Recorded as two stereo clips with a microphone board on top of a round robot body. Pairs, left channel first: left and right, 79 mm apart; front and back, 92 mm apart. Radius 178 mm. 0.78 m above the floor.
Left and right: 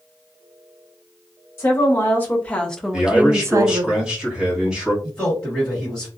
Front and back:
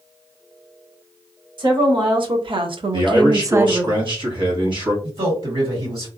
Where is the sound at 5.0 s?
170° left, 1.8 m.